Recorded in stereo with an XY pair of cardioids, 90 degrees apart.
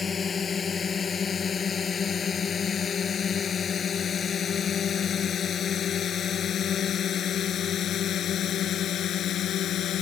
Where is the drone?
40° left; by 10.0 s 75° left.